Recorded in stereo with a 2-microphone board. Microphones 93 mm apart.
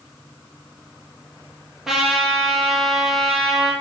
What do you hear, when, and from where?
1.9 s a trumpet: 5° right (ahead or behind), 3.5 m